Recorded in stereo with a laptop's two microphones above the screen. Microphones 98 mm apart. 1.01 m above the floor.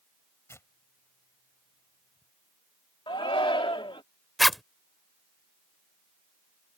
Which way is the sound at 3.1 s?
65° left (ahead or behind).